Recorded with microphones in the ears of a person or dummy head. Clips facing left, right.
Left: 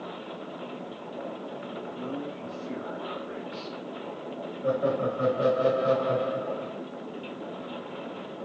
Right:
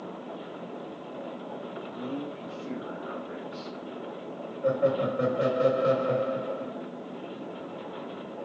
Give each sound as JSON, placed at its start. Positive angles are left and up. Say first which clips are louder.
{"t": 1.9, "sound": "a man speaking", "louder": "right 1 dB", "side_deg": 0, "distance_m": 0.9}
{"t": 4.6, "sound": "laughter", "louder": "right 1 dB", "side_deg": -60, "distance_m": 0.8}